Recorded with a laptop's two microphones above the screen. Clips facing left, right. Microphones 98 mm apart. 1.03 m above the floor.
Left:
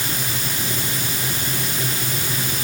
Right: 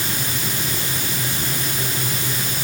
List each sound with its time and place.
Only background noise.